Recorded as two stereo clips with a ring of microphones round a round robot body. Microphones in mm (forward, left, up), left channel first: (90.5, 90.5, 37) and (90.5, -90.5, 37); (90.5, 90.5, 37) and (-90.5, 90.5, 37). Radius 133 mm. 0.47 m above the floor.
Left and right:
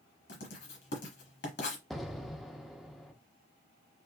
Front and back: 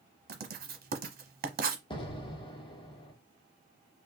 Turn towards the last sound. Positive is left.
turn(degrees=0)